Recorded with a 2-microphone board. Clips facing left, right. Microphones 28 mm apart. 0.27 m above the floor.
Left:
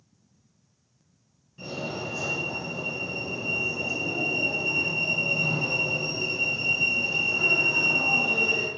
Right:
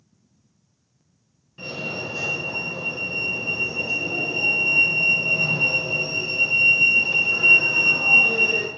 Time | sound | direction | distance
1.6 | a fire alarm | 35° right (ahead or behind) | 5.5 m